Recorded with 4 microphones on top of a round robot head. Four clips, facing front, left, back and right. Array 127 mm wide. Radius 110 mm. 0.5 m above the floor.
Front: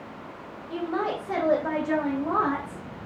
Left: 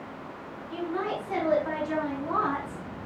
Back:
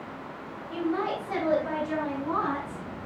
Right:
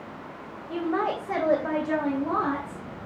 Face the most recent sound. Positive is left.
turn(degrees=-15)